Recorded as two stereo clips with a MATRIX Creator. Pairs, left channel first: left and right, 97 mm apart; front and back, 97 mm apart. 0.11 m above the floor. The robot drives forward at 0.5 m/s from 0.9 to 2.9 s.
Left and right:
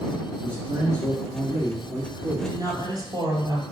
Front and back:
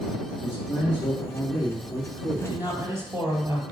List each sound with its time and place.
0.4 s a man speaking: 50° right, 2 m; by 2.6 s 85° right, 1.9 m
2.4 s a woman speaking: 115° right, 2.5 m; by 3.6 s 125° right, 2.5 m